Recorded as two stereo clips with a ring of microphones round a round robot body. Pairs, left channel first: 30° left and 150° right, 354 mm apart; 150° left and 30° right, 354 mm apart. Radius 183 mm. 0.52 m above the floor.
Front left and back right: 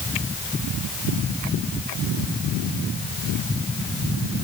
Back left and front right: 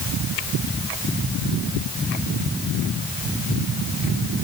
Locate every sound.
Only background noise.